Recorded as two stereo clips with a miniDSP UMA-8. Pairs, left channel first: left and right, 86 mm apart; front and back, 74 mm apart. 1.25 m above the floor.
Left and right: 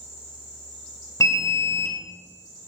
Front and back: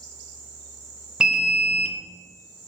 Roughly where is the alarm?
Left.